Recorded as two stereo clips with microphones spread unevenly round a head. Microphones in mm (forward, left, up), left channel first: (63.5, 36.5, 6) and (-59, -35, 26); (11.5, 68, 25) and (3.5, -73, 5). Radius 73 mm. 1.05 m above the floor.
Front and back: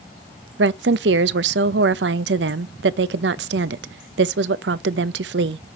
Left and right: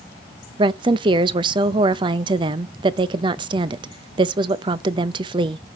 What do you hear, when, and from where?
0.6 s a woman speaking: 150° right, 0.6 m